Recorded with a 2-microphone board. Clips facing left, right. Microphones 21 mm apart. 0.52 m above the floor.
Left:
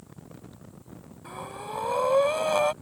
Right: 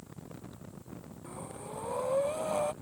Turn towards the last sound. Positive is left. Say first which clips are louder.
# left 7 dB
turn(degrees=75)  # may be behind; listen again after turning